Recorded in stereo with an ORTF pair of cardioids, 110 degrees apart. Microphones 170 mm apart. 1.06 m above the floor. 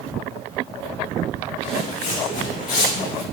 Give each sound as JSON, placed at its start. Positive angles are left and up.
{"t": 1.6, "sound": "footsteps", "azimuth_deg": 50, "distance_m": 5.0}